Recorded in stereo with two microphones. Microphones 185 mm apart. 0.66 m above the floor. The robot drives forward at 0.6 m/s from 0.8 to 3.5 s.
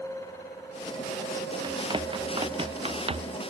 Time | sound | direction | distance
1.6 | running footsteps | 25° right (ahead or behind) | ?